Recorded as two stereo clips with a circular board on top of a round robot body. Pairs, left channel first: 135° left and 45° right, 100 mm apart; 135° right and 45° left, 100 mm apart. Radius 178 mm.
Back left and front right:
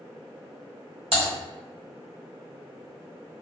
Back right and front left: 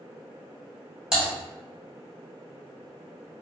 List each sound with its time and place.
1.1 s typing on a keyboard: 35° right, 1.8 m